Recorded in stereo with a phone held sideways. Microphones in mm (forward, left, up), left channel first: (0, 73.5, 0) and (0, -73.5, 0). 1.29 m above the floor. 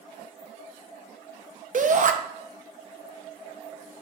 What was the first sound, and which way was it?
A shout, 60° right (ahead or behind).